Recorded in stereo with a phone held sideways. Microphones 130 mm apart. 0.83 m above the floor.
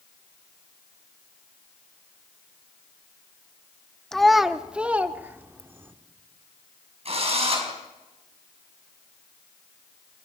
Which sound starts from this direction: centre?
A child speaking, at 4.1 s.